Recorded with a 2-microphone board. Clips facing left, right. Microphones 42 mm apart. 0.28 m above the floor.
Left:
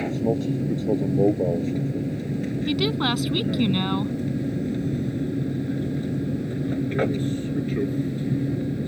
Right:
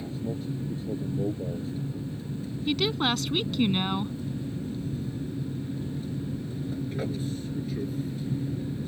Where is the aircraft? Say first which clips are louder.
Left 10 dB; 65° left (ahead or behind); by 8.9 s 40° left (ahead or behind).